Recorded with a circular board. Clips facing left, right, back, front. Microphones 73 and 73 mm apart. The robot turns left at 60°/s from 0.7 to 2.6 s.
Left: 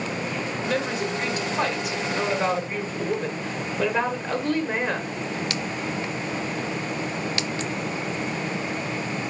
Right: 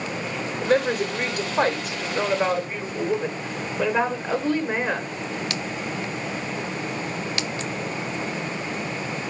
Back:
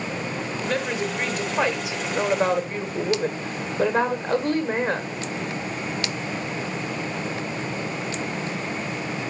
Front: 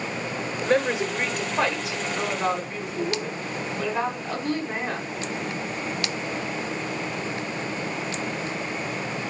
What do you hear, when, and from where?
0.6 s a woman speaking: 50° right, 1.6 m; by 5.1 s 165° right, 1.6 m